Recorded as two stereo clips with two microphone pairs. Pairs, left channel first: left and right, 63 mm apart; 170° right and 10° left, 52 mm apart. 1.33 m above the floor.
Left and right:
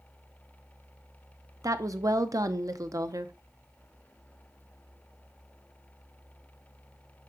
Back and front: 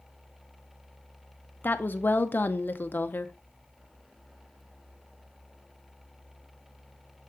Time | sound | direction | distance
1.6 | a woman speaking | 115° right | 0.7 m